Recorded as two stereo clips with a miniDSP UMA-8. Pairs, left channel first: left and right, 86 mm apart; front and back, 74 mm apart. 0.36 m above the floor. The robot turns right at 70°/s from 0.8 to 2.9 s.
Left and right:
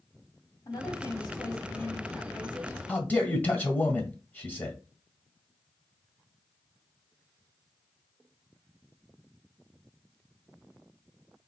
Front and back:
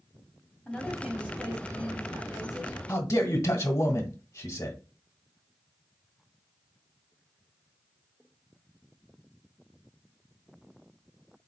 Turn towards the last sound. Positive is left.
turn(degrees=25)